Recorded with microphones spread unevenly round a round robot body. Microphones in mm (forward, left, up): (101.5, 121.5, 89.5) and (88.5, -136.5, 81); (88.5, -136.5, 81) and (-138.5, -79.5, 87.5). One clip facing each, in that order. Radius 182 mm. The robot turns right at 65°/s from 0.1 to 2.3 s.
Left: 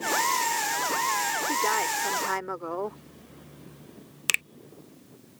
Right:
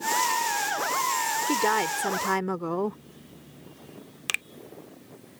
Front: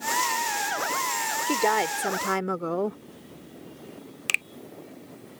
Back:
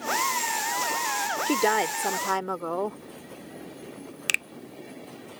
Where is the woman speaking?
125° right; by 3.0 s 70° right.